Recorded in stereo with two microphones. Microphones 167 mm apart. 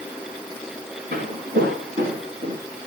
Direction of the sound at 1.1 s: 80° right.